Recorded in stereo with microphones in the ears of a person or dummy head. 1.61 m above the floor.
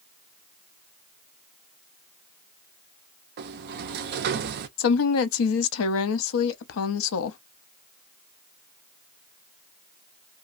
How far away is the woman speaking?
About 0.6 m.